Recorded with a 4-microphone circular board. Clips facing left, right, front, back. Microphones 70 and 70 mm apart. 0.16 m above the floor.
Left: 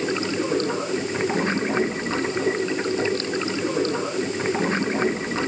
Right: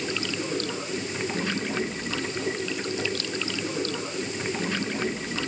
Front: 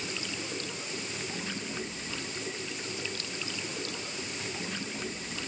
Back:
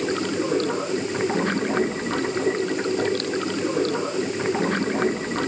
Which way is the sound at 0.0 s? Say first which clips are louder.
Left 6 dB, back 14 dB; 145° left.